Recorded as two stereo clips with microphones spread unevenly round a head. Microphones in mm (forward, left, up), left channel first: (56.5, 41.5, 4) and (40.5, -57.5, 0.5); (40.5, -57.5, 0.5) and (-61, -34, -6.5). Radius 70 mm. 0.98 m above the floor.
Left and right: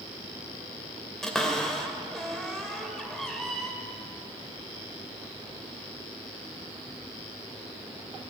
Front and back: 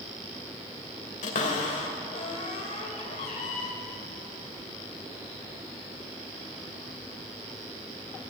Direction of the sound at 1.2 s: 5° right.